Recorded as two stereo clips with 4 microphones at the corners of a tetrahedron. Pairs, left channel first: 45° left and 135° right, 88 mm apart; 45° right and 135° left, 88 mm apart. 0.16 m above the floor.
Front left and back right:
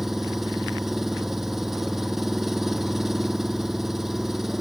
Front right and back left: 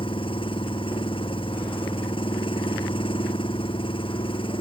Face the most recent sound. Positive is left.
turn(degrees=-50)